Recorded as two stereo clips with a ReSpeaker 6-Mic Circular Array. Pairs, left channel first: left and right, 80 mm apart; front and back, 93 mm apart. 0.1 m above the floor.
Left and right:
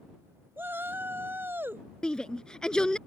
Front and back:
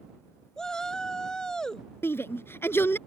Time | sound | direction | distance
0.6 | a shout | 75° right | ?
2.0 | a shout | 20° left | ?